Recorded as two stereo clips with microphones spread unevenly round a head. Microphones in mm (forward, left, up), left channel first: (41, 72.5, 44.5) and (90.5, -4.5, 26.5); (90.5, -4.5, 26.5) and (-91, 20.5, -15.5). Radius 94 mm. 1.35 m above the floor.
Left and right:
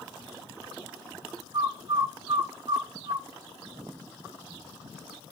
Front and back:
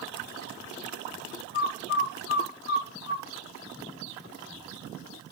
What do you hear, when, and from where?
1.5 s a bird: 10° right, 0.6 m